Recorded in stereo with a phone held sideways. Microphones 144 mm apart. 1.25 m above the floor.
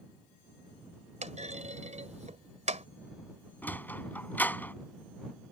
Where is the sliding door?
10° left (ahead or behind).